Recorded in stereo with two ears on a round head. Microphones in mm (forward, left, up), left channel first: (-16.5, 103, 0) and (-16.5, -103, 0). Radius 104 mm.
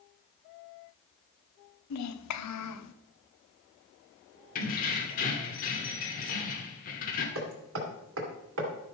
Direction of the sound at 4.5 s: 35° left (ahead or behind).